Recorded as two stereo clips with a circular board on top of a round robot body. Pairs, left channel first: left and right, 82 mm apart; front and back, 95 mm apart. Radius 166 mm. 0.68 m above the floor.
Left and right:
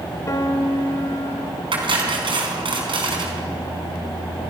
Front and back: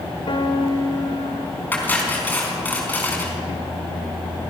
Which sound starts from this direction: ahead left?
A piano, at 0.3 s.